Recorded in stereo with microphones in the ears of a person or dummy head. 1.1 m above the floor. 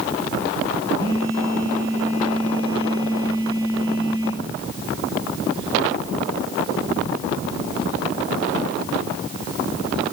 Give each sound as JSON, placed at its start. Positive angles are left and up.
{"t": 1.0, "sound": "a phone buzzing", "side_deg": -30, "distance_m": 7.0}